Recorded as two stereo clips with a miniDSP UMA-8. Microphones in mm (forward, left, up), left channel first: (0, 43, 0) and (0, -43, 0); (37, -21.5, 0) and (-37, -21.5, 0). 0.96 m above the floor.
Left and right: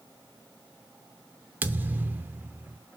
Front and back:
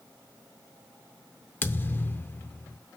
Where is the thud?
40° right, 0.6 m.